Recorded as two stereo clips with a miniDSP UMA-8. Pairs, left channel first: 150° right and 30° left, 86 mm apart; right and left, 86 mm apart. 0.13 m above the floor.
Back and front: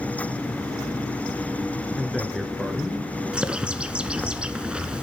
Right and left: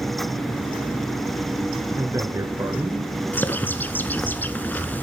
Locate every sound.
2.0 s a man speaking: 115° left, 1.4 m
3.3 s a bird: 40° right, 0.8 m